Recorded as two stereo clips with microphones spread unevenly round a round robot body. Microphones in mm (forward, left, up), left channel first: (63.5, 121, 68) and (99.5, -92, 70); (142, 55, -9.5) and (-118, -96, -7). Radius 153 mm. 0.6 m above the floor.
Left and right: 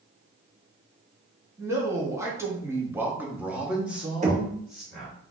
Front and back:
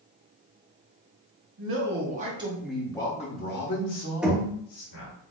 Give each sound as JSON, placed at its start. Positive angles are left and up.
{"t": 1.6, "sound": "a man speaking", "azimuth_deg": -155, "distance_m": 1.0}
{"t": 4.2, "sound": "knocking", "azimuth_deg": -65, "distance_m": 1.0}